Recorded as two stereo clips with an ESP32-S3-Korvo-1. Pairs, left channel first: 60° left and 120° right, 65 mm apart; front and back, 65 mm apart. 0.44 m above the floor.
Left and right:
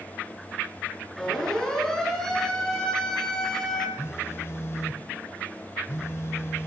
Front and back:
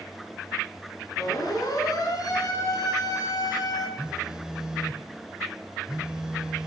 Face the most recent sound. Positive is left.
turn(degrees=100)